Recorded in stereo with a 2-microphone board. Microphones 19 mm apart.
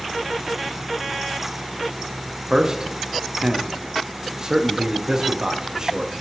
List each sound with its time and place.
2.5 s a man speaking: 35° right (ahead or behind), 0.6 m